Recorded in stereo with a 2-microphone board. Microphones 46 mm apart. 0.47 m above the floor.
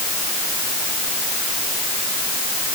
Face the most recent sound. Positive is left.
No sound to turn to.